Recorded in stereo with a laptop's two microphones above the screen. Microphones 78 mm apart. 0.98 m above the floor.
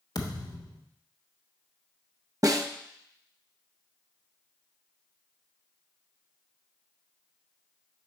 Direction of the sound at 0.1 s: 60° left (ahead or behind).